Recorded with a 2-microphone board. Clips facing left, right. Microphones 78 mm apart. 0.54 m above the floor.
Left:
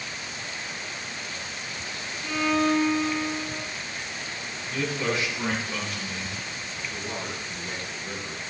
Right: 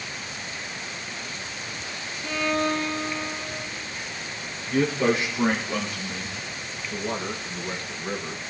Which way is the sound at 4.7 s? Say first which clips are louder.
Right 6 dB; 25° right (ahead or behind).